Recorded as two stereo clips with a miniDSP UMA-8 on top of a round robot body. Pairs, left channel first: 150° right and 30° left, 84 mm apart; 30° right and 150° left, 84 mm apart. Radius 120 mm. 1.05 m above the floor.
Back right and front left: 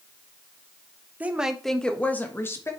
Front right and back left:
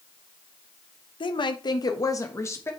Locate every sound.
1.2 s a woman speaking: 40° right, 1.2 m; by 2.7 s 90° right, 2 m